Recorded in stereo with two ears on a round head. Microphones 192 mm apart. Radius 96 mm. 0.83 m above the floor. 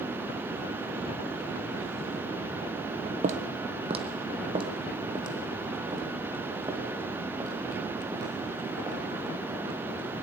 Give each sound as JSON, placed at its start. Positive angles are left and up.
{"t": 3.2, "sound": "footsteps", "side_deg": -35, "distance_m": 1.5}